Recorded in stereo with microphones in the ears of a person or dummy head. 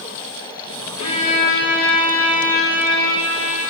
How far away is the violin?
About 4.5 m.